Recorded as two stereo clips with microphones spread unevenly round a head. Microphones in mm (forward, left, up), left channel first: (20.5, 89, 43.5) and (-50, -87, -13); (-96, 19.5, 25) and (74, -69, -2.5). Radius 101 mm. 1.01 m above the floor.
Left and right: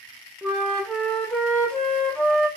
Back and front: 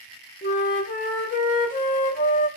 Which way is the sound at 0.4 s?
135° left.